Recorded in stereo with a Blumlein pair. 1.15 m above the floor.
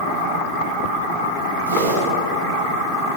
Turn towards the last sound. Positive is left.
turn(degrees=-60)